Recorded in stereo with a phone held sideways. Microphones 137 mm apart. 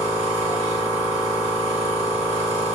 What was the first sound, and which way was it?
A machine running, 55° right (ahead or behind).